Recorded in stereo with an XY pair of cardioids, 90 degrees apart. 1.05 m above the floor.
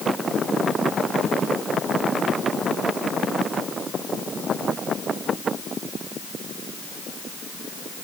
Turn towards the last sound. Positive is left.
No sound to turn to.